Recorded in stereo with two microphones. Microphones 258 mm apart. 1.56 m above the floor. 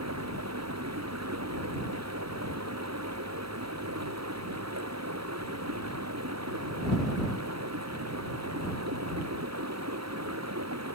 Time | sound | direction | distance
0.0 | running water | 85° right | ?